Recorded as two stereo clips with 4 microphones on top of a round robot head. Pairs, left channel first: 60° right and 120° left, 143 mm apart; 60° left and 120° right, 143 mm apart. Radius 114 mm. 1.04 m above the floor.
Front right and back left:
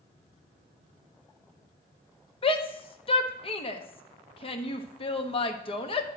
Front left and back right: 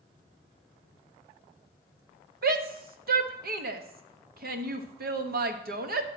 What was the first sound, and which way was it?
A shout, 110° right.